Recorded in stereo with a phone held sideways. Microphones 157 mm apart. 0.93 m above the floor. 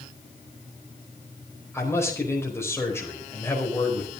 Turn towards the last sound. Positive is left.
turn(degrees=15)  # may be behind; listen again after turning